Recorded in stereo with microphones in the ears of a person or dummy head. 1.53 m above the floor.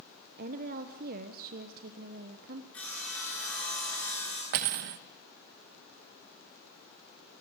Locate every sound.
0.4 s a woman speaking: 50° right (ahead or behind), 1.1 m
2.7 s sawing: 5° left (ahead or behind), 9.5 m
4.5 s cutlery clinking: 45° right (ahead or behind), 0.8 m